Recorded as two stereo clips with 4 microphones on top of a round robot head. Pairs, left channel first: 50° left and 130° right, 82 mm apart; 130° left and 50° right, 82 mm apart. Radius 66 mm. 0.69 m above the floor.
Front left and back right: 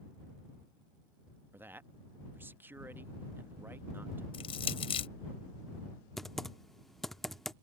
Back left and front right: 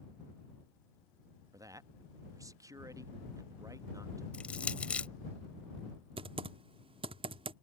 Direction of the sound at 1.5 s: 75° right.